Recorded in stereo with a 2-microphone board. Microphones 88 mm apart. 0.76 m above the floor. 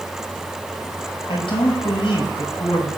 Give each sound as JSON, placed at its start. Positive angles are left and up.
{"t": 1.3, "sound": "a man speaking", "side_deg": 80, "distance_m": 5.5}